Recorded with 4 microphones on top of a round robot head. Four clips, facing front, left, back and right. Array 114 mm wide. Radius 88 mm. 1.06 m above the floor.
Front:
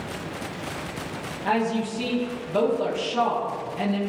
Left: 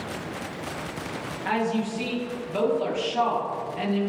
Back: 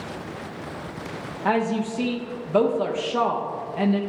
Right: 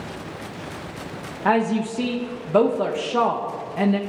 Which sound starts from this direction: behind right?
A woman speaking, at 1.4 s.